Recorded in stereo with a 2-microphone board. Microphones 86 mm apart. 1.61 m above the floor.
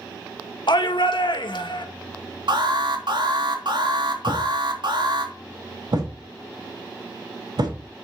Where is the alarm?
65° right (ahead or behind), 3 m.